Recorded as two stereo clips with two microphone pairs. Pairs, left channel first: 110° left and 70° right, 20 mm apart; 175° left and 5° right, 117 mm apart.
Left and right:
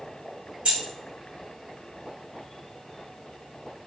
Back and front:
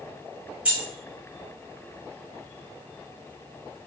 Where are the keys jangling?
80° right, 1.3 m.